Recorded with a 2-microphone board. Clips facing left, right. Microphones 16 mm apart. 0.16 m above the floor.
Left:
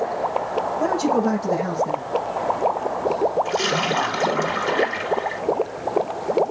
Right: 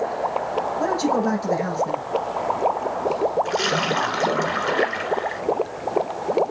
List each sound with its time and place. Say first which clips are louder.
0.8 s a man speaking: left 1 dB; 30° right (ahead or behind), 6 m
3.5 s a splash: even; 20° right (ahead or behind), 1.8 m